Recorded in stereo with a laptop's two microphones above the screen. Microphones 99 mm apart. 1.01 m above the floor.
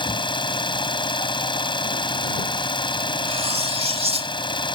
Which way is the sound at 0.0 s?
50° left (ahead or behind).